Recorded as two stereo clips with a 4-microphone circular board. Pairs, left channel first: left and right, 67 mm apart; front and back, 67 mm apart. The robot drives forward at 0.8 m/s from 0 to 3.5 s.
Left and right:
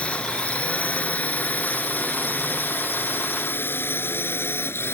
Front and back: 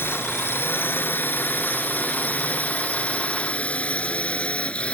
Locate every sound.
0.0 s a drone: 30° left; by 5.0 s 60° left